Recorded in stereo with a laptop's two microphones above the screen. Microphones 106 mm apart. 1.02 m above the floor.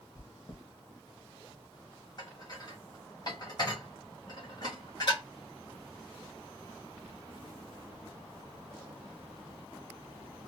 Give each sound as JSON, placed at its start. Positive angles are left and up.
{"t": 0.1, "sound": "chewing", "side_deg": 45, "distance_m": 1.2}
{"t": 2.2, "sound": "dishes clattering", "side_deg": 40, "distance_m": 0.9}